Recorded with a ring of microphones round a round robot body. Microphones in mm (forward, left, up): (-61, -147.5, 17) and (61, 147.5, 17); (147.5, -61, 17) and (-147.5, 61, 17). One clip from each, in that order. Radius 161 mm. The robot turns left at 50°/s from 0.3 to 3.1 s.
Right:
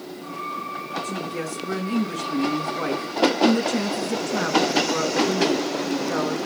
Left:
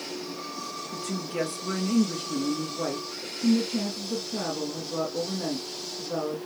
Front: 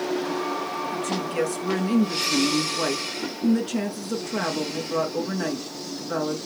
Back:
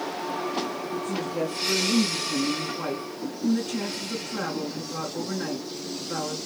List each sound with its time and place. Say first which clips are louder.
0.9 s a woman speaking: right 2 dB, front 2 dB; 20° left, 4.5 m; by 6.4 s 90° right, 4.5 m